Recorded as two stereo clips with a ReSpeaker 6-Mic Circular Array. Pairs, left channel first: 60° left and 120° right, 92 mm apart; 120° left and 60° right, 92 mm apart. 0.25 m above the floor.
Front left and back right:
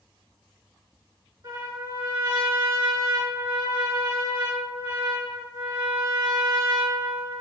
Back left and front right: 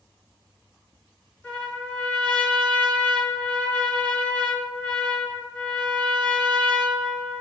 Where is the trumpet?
165° right, 3.5 m.